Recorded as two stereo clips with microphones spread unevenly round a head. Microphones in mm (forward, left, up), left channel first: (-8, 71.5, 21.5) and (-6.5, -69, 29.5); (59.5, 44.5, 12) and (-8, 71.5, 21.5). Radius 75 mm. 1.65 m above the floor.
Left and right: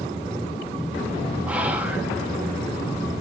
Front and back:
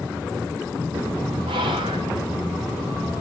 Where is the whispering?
170° right, 1.2 m.